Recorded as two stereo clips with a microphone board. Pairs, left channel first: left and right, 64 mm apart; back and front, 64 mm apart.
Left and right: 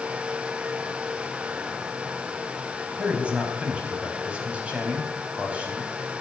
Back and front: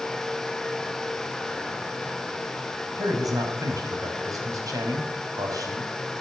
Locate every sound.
3.0 s a man speaking: 20° right, 5 m